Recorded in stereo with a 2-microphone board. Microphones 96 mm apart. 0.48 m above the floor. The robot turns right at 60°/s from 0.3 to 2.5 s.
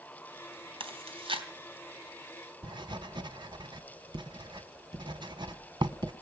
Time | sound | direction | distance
0.8 | chewing | 70° right (ahead or behind) | 3.5 m
2.6 | writing | 55° right (ahead or behind) | 1.5 m